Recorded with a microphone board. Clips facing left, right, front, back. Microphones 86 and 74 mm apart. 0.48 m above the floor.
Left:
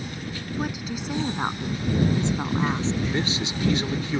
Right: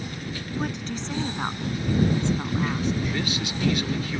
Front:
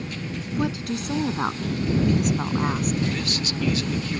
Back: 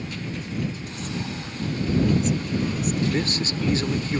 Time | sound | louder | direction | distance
0.5 | a woman speaking | even, front 8 dB | 5° left | ?
3.1 | a man speaking | left 2 dB, back 3 dB | 145° left | ?